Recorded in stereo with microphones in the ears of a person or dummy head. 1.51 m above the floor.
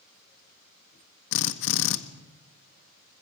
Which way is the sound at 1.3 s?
65° left (ahead or behind).